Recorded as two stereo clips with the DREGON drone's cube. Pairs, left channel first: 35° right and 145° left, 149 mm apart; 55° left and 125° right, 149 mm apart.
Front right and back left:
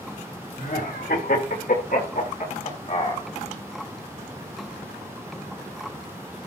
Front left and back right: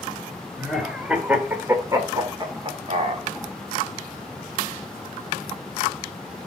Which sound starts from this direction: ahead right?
Laughter, at 0.6 s.